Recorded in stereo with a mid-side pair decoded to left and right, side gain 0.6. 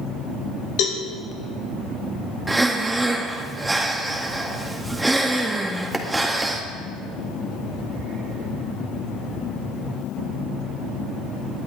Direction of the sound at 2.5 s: 10° right.